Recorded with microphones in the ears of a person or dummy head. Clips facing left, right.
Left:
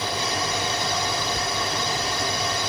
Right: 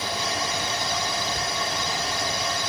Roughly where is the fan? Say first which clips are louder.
Left 2 dB; left.